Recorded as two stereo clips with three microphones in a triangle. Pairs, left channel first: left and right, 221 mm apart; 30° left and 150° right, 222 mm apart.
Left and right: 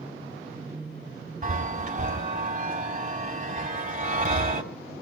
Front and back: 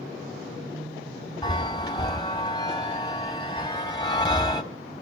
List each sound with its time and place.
1.4 s a chime: 40° right, 3.5 m